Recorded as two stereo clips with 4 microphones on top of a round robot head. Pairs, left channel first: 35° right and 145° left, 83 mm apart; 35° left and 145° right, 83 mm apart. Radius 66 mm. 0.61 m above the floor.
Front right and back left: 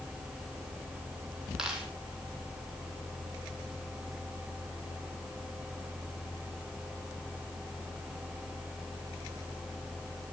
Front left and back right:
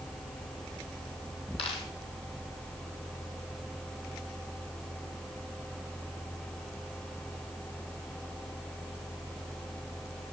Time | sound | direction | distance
1.6 | a dropped coin | 60° left | 3 m